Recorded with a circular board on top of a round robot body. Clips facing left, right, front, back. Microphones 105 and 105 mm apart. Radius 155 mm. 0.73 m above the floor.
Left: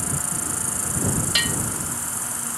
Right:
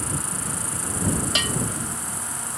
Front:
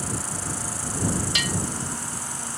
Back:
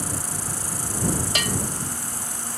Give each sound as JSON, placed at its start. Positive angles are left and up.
{"t": 0.0, "sound": "an insect", "azimuth_deg": 145}
{"t": 1.4, "sound": "a bell", "azimuth_deg": -140}